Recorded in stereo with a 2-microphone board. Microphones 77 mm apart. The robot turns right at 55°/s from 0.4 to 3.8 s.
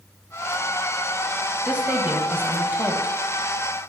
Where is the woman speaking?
15° right (ahead or behind), 1.1 m; by 3.1 s 20° right (ahead or behind), 1.1 m.